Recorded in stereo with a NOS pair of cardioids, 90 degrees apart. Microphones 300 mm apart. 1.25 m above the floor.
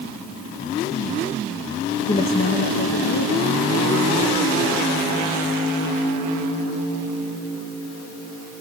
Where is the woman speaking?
25° left, 1.2 m; by 5.5 s 50° left, 5 m.